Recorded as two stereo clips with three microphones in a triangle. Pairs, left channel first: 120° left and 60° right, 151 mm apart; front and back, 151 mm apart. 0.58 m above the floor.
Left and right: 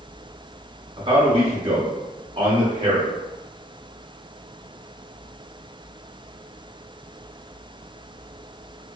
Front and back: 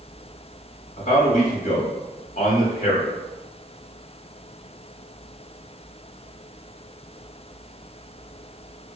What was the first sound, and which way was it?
A man speaking, 15° right.